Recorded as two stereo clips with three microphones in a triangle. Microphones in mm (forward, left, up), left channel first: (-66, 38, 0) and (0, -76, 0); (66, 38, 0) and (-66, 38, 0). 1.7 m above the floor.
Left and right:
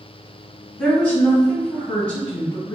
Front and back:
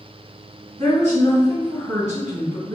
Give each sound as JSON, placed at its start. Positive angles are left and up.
{"t": 0.8, "sound": "a woman speaking", "azimuth_deg": -160, "distance_m": 1.9}